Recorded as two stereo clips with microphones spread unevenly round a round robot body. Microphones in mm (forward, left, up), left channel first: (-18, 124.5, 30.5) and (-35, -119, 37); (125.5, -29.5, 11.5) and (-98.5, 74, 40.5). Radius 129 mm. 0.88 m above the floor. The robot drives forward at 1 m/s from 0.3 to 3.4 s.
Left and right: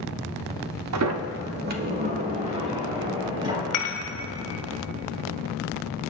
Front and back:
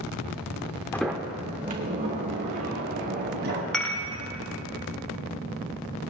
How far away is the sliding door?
About 0.8 m.